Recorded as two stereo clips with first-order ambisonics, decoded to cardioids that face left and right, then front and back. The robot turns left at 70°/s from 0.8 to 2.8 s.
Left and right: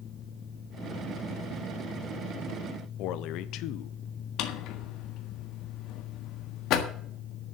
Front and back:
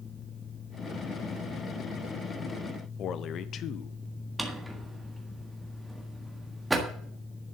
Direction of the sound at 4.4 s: 95° left.